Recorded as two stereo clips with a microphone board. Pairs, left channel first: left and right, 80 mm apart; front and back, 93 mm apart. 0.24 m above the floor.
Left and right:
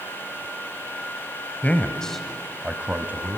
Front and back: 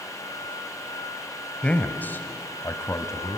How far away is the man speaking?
About 1.2 m.